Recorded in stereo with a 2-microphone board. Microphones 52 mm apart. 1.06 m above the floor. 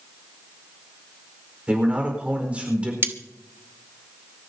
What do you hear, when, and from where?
1.7 s a man speaking: 25° right (ahead or behind), 4.5 m
3.0 s cutlery clinking: 40° right (ahead or behind), 1.0 m